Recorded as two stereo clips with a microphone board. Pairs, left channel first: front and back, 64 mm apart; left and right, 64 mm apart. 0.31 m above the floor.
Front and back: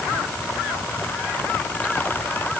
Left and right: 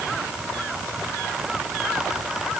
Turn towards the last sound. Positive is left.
No sound to turn to.